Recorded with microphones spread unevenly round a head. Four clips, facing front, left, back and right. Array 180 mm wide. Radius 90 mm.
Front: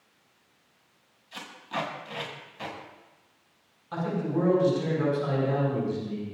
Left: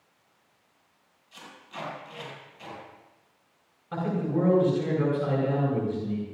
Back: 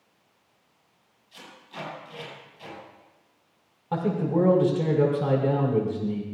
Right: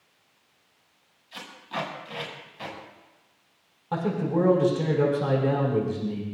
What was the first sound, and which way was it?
Tape being pulled, 40° right.